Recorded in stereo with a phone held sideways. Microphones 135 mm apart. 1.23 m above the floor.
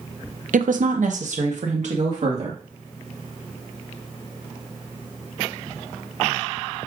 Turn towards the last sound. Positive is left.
turn(degrees=-60)  # may be behind; listen again after turning